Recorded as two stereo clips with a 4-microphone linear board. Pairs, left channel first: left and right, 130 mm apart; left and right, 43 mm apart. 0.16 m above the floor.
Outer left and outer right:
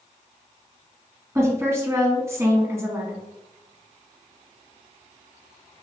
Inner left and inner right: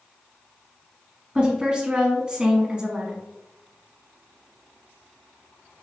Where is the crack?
No crack in this recording.